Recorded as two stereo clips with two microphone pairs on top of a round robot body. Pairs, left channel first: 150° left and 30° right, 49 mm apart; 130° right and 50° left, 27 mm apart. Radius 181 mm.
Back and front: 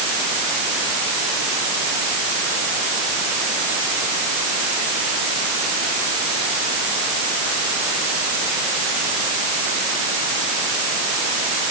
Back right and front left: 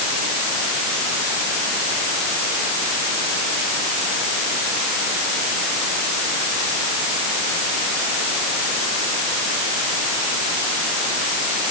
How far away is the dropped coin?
I don't hear a dropped coin.